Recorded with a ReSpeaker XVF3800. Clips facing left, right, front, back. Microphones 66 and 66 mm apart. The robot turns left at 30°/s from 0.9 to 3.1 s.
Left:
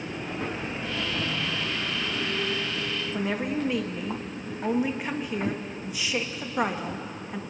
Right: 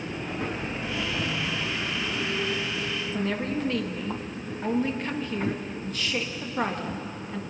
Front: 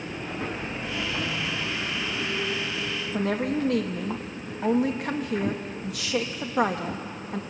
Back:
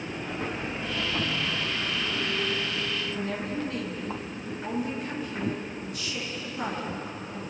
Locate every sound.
3.1 s a woman speaking: 10° left, 1.8 m